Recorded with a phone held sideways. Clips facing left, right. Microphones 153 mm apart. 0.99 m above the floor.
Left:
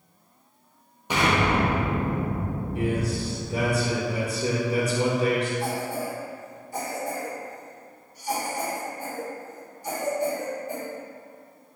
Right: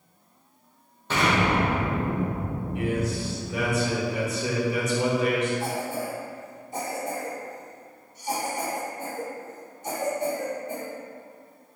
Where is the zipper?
I don't hear a zipper.